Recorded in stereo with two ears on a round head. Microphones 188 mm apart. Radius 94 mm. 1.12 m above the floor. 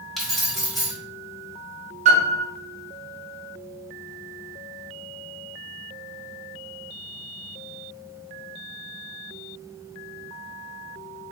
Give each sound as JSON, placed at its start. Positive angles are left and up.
{"t": 0.2, "sound": "keys jangling", "side_deg": 0, "distance_m": 1.4}
{"t": 2.0, "sound": "a piano", "side_deg": -35, "distance_m": 1.2}